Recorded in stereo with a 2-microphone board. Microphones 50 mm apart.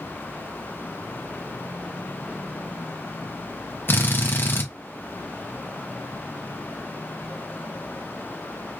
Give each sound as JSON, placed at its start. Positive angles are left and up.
{"t": 3.9, "sound": "a drill", "side_deg": 45, "distance_m": 0.8}